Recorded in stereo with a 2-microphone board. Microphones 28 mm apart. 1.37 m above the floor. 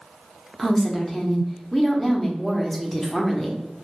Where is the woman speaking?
10° left (ahead or behind), 0.6 m.